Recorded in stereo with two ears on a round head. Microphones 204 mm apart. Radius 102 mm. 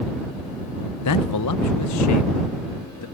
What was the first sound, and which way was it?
A man speaking, 80° left.